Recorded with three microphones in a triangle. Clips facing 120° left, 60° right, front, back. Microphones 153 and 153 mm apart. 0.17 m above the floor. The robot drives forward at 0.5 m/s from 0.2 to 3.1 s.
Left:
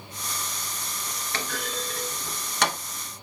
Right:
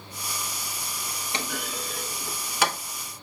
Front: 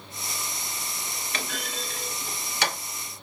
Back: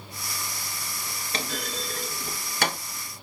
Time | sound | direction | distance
1.3 | a clunk | 130° right | 1.5 m